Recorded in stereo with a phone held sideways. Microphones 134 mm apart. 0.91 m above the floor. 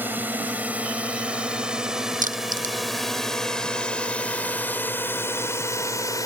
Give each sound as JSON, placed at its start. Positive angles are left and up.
{"t": 0.0, "sound": "a drone", "side_deg": -15}
{"t": 2.2, "sound": "crushing", "side_deg": -90}